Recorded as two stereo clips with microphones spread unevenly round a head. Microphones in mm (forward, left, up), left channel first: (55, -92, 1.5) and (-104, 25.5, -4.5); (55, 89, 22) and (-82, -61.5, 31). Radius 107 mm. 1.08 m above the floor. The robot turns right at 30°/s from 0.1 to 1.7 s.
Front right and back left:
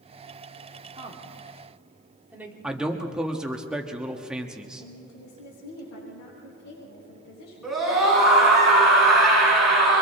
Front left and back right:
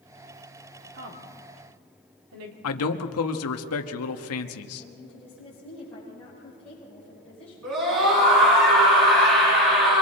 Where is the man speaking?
55° left, 1.3 m.